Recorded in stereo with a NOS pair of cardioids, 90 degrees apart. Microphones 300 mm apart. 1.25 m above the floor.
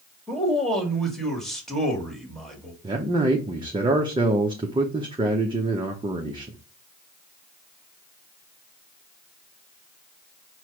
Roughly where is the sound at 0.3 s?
Ahead.